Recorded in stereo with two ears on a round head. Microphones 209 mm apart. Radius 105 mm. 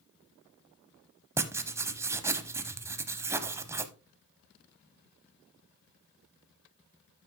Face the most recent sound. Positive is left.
turn(degrees=-10)  # may be behind; listen again after turning